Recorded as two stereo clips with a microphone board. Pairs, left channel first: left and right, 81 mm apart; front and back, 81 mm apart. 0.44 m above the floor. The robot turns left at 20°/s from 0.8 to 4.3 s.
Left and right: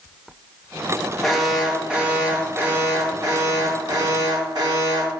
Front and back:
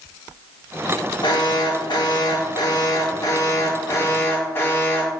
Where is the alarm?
Straight ahead, 2.5 m; by 5.1 s 60° right, 2.5 m.